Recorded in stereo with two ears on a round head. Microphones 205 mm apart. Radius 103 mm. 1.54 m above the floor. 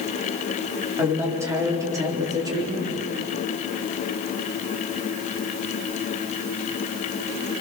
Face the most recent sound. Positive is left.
turn(degrees=-20)  # may be behind; listen again after turning